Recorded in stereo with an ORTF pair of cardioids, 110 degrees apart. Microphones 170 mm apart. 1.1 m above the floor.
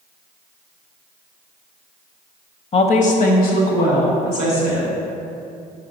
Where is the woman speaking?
35° left, 0.7 m; by 4.9 s 75° left, 2.5 m.